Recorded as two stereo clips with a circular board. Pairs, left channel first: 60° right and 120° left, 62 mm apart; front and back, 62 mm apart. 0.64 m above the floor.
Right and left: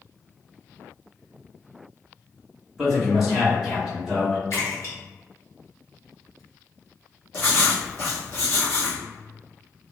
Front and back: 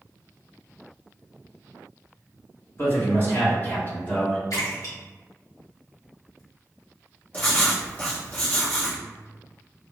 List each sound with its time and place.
2.8 s a man speaking: 35° left, 1.9 m; by 4.4 s 40° left, 1.3 m
4.5 s a splash: 15° right, 1.5 m
7.3 s writing: 40° right, 1.5 m